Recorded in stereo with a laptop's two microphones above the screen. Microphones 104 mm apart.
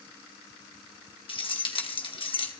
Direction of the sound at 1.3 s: 55° left (ahead or behind).